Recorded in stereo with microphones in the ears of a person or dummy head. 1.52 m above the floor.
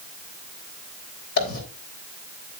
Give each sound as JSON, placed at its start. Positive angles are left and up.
{"t": 1.4, "sound": "a dropped coin", "side_deg": 55, "distance_m": 3.5}